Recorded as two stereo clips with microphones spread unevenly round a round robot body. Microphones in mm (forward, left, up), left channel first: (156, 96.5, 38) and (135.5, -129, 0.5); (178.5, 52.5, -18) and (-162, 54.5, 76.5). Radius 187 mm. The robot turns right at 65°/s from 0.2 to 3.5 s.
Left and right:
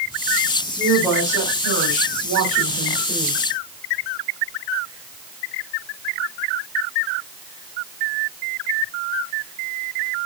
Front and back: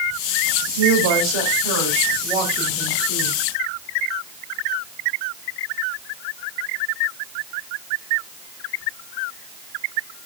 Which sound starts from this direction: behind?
A woman speaking, at 0.8 s.